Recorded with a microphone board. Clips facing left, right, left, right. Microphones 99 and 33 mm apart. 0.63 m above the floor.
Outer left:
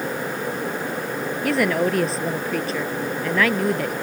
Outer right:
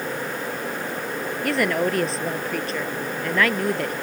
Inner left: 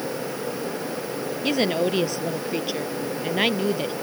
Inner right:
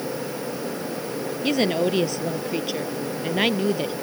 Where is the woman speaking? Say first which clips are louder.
Outer left 2 dB, inner right 1 dB; centre (ahead or behind).